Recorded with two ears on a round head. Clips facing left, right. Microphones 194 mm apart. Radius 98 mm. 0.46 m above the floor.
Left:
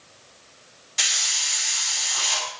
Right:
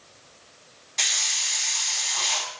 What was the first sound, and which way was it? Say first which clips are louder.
A hiss: even; 5° left (ahead or behind).